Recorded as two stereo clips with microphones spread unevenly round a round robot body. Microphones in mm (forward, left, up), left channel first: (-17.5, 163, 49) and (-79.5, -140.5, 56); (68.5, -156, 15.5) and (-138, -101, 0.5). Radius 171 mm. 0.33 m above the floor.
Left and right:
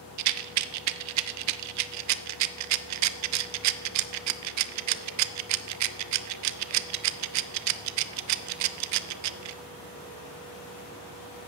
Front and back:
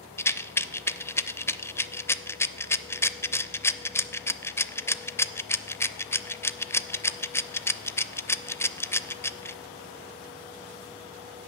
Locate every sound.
0.2 s a rattle: 95° right, 0.5 m